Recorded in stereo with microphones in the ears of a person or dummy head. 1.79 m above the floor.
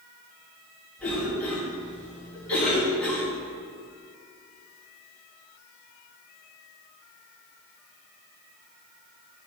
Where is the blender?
I don't hear a blender.